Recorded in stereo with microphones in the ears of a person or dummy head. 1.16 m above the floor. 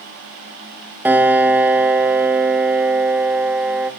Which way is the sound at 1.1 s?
10° right (ahead or behind).